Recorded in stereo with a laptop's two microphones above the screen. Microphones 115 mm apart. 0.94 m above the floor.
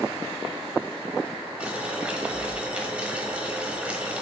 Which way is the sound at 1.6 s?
10° right (ahead or behind).